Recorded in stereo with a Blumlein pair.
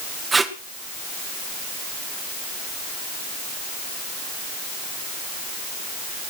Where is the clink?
I don't hear a clink.